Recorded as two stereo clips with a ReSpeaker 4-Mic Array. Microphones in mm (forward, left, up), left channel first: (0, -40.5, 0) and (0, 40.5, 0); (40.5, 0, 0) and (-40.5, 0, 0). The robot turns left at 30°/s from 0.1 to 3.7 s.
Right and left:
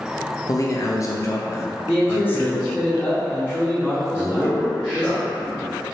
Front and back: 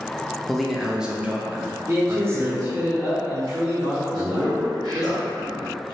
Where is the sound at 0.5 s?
85° right, 0.6 m; by 2.9 s 160° right, 0.6 m.